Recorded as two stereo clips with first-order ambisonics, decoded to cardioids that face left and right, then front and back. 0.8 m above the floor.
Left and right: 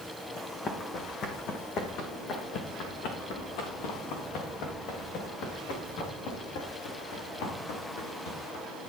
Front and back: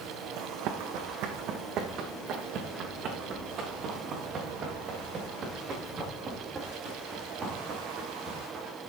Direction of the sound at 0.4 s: 155° left.